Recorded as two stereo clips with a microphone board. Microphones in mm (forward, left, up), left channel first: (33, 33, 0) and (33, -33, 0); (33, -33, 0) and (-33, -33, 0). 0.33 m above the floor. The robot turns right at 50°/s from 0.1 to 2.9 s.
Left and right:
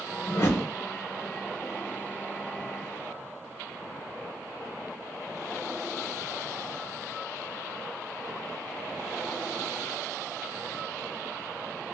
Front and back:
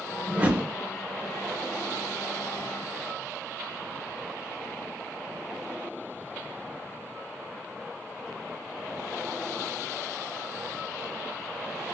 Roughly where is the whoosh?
Behind left.